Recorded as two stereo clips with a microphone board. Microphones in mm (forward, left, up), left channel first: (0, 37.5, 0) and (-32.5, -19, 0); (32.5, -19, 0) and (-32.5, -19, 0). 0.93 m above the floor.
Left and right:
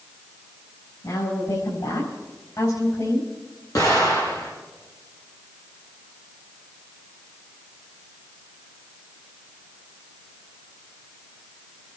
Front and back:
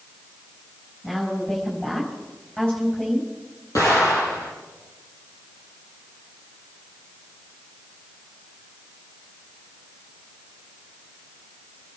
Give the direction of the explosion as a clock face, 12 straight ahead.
11 o'clock.